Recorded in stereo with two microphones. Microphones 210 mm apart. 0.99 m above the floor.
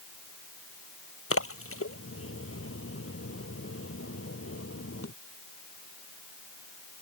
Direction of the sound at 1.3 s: 80° left.